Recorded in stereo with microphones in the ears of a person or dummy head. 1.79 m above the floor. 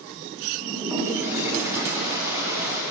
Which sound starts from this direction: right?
A toilet flushing, at 0.6 s.